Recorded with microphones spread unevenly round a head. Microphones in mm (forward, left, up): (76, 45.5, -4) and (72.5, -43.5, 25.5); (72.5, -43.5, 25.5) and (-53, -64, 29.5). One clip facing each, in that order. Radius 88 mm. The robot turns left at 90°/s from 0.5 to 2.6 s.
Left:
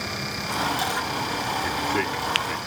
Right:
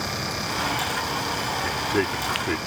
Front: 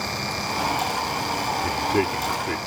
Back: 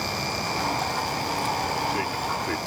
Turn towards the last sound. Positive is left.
turn(degrees=-85)